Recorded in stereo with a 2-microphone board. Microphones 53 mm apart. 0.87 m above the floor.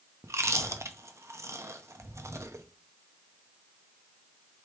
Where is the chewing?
65° right (ahead or behind), 0.6 m.